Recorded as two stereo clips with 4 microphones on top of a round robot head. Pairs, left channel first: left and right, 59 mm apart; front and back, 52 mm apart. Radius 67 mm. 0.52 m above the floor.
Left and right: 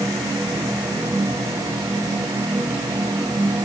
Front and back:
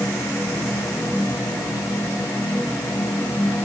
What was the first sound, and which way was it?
Only background noise.